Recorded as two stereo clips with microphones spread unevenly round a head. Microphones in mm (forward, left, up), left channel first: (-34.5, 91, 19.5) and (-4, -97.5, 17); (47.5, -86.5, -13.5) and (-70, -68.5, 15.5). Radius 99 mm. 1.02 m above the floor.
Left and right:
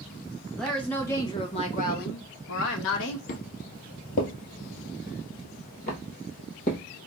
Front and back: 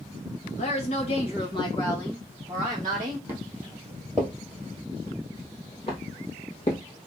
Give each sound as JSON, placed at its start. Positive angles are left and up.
{"t": 0.6, "sound": "a woman speaking", "azimuth_deg": 10, "distance_m": 1.2}
{"t": 3.3, "sound": "footsteps", "azimuth_deg": 125, "distance_m": 1.4}